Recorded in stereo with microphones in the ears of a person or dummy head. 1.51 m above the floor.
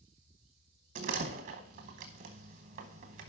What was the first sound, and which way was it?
A door slam, 40° right (ahead or behind).